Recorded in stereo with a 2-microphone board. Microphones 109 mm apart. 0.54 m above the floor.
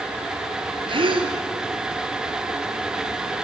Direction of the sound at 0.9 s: 50° right (ahead or behind).